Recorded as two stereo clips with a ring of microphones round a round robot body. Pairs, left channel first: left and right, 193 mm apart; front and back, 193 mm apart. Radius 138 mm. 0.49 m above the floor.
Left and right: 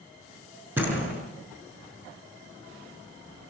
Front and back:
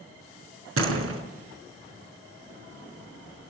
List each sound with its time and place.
0.8 s a door slam: 175° right, 5 m